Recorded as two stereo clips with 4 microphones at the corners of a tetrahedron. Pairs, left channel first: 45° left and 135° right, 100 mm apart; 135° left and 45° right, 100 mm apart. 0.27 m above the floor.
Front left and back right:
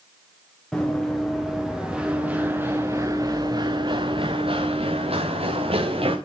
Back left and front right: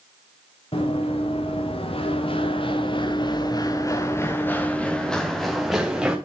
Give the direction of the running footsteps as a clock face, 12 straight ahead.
8 o'clock.